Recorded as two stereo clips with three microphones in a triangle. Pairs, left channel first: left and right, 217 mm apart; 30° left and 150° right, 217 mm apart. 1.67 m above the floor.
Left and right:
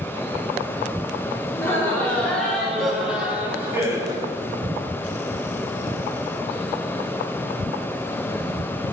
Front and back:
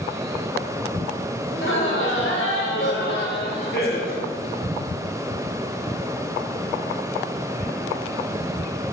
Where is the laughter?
10° left, 4.5 m; by 4.3 s 20° right, 3 m.